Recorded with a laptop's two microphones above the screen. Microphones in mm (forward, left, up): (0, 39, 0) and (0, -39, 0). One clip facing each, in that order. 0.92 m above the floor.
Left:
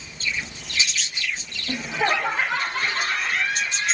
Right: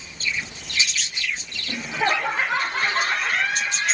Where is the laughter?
15° left (ahead or behind), 0.8 m; by 3.9 s 60° right (ahead or behind), 1.0 m.